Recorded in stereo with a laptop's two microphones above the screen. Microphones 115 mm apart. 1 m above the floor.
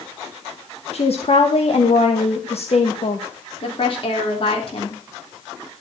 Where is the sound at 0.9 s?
60° left (ahead or behind), 1.1 m.